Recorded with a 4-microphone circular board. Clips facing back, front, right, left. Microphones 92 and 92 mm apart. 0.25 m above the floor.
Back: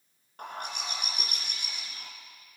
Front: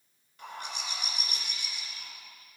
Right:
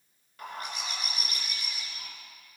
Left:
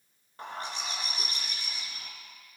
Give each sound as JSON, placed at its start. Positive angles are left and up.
{"t": 0.4, "sound": "a bird", "azimuth_deg": 150, "distance_m": 2.0}